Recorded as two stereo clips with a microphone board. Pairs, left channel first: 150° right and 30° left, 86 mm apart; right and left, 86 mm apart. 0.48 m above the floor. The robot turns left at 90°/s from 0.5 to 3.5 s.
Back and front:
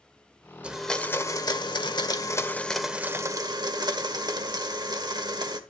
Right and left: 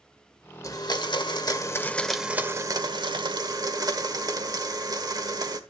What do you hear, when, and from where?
0.6 s a blender: 45° right, 1.4 m; by 5.6 s 55° left, 1.4 m